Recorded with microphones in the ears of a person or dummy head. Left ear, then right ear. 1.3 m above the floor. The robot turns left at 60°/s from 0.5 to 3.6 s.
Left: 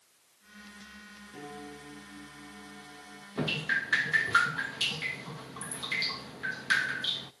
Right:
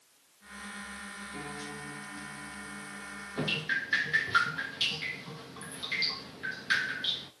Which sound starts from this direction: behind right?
A piano, at 1.3 s.